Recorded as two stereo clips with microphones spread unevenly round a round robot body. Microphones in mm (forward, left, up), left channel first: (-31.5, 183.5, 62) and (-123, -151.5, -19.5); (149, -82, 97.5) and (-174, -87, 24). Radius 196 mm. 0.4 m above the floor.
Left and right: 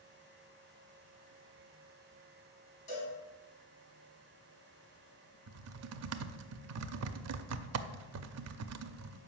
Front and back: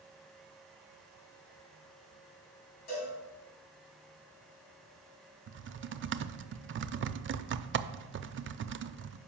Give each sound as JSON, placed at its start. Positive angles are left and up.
{"t": 2.9, "sound": "a cowbell", "azimuth_deg": 20, "distance_m": 4.5}
{"t": 5.5, "sound": "typing on a keyboard", "azimuth_deg": -135, "distance_m": 0.5}